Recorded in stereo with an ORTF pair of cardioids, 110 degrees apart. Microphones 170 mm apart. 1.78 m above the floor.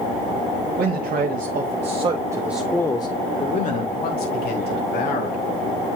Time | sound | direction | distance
0.8 | a man speaking | 65° right | 1.8 m